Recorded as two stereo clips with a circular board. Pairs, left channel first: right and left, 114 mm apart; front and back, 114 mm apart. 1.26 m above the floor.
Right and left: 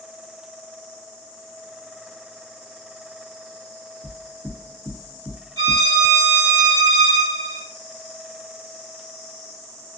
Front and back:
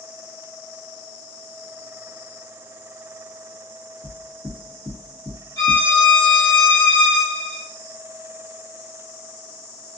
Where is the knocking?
110° left, 1.3 m.